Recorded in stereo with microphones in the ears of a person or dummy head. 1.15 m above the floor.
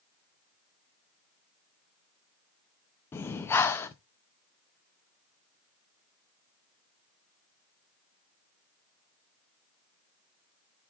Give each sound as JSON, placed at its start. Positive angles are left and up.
{"t": 3.1, "sound": "breathing", "side_deg": 10, "distance_m": 0.5}